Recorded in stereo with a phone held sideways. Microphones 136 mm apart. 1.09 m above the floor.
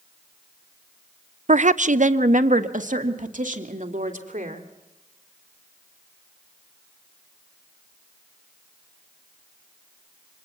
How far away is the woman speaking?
About 0.5 m.